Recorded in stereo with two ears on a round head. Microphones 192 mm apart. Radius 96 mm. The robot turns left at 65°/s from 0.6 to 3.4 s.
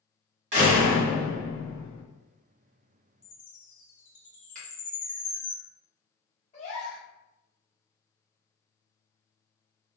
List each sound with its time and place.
0.5 s a door slam: 145° right, 1.4 m; by 2.0 s 120° left, 1.4 m
3.2 s a chime: 35° left (ahead or behind), 1.2 m; by 5.5 s 40° left (ahead or behind), 1.2 m
4.5 s a finger snap: 40° right (ahead or behind), 1.2 m
6.5 s a gasp: 30° left (ahead or behind), 1.0 m